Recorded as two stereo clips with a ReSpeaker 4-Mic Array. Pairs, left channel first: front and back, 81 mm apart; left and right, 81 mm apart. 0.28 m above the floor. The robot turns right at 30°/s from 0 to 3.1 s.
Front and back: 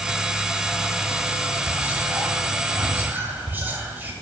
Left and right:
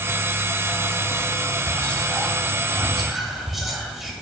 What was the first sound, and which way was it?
Whispering, 140° left.